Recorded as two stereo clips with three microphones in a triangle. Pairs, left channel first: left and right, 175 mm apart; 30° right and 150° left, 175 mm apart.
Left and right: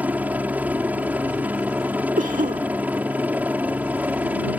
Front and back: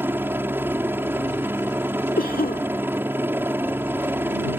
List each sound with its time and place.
0.0 s a helicopter: 155° right
2.2 s a cough: 55° right